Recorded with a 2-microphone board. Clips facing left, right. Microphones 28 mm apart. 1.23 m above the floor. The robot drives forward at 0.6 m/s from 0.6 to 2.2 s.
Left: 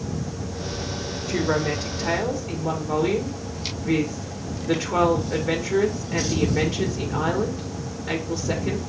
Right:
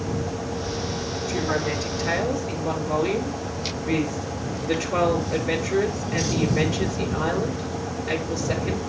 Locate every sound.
1.3 s a woman speaking: 35° left (ahead or behind), 1.3 m; by 8.8 s 25° left (ahead or behind), 1.8 m